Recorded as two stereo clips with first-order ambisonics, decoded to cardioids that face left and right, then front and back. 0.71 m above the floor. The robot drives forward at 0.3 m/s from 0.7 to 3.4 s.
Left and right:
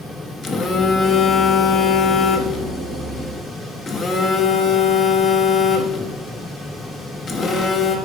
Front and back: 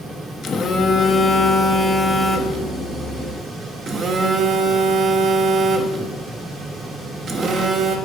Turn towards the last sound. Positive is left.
turn(degrees=135)